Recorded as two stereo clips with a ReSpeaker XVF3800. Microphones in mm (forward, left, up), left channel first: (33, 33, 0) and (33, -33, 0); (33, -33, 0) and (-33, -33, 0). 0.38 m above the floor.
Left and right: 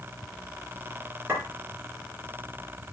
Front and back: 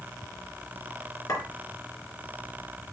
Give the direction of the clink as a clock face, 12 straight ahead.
1 o'clock.